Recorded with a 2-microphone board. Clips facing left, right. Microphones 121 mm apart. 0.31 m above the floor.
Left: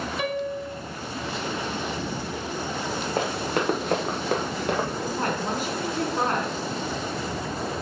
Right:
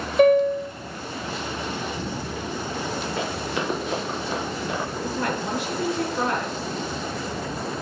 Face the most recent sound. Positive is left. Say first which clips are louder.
# even
turn(degrees=40)  # may be behind; listen again after turning